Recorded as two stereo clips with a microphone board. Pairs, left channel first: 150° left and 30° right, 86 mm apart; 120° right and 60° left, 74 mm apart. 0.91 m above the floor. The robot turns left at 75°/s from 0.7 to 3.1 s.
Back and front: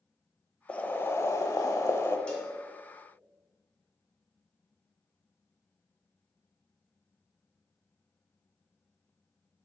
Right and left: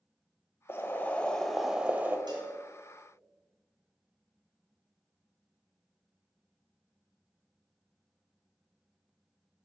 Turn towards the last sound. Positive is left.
turn(degrees=10)